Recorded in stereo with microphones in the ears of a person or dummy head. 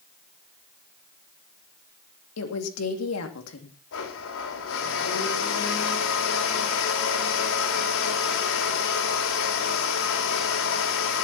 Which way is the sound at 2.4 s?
85° left.